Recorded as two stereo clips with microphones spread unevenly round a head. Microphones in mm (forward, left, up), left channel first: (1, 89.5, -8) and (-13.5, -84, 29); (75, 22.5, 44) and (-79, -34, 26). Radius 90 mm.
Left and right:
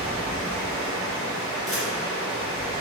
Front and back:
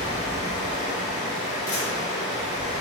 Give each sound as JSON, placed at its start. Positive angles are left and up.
{"t": 0.0, "sound": "running water", "azimuth_deg": -20, "distance_m": 2.0}
{"t": 1.7, "sound": "a camera shutter", "azimuth_deg": -15, "distance_m": 0.9}